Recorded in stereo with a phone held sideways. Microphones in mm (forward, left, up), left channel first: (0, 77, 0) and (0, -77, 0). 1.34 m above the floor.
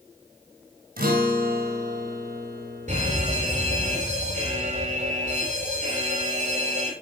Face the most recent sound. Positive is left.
turn(degrees=-50)  # may be behind; listen again after turning